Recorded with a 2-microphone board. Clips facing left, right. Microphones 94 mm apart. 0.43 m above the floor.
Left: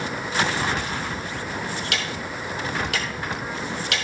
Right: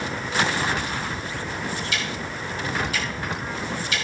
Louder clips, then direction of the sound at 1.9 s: Even; 65° left (ahead or behind).